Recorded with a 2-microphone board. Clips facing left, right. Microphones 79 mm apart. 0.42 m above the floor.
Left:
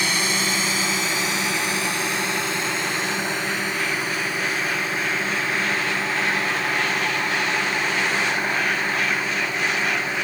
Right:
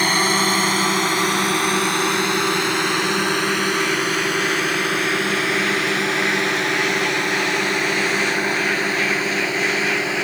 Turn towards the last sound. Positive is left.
turn(degrees=-80)